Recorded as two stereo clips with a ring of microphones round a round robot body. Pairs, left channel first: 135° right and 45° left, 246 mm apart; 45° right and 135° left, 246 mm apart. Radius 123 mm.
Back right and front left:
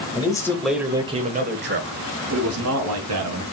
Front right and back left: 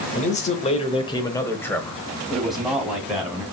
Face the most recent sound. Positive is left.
turn(degrees=50)